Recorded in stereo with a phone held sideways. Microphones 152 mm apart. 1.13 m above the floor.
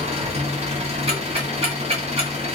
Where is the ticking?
35° right (ahead or behind), 1.9 m.